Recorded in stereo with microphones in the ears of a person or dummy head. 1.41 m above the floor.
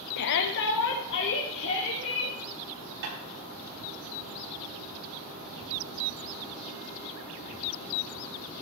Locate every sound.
0.2 s a shout: 55° left (ahead or behind), 0.7 m; by 2.4 s 65° left (ahead or behind), 3.5 m
3.0 s tapping: 55° right (ahead or behind), 9 m